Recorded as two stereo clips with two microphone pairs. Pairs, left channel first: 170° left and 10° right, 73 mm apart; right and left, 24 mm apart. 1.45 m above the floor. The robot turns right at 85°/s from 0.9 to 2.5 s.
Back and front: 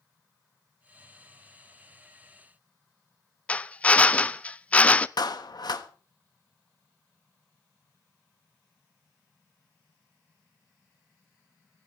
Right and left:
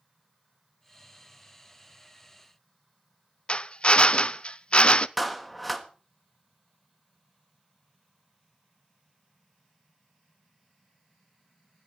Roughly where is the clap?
Behind.